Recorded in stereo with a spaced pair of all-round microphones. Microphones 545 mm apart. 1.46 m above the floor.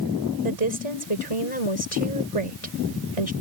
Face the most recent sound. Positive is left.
turn(degrees=85)